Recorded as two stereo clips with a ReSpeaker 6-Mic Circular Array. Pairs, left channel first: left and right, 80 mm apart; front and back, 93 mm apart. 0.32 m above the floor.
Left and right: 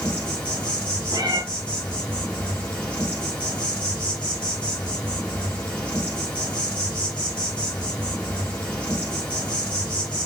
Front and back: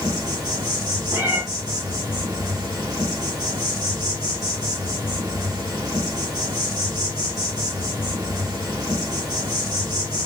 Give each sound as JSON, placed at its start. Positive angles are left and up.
{"t": 0.0, "sound": "an insect", "azimuth_deg": 160, "distance_m": 1.6}
{"t": 1.1, "sound": "a cat meowing", "azimuth_deg": -120, "distance_m": 1.0}